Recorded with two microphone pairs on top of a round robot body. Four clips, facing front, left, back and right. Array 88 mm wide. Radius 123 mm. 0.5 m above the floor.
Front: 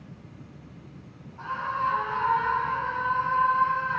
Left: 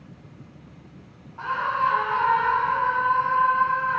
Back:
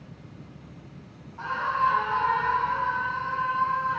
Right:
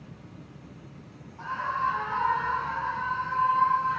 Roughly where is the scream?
Left.